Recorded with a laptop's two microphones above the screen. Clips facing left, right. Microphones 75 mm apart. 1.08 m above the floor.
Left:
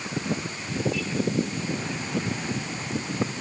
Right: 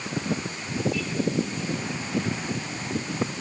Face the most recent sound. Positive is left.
No sound to turn to.